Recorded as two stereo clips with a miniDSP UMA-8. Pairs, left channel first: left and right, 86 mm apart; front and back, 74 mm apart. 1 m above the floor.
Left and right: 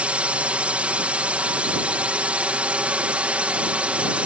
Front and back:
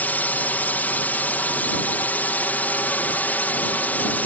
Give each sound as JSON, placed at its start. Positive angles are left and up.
{"t": 0.0, "sound": "a drone", "azimuth_deg": -35}